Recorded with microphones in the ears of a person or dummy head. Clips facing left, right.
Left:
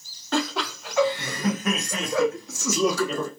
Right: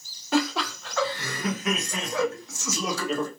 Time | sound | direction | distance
0.3 | laughter | 5° right (ahead or behind) | 1.0 m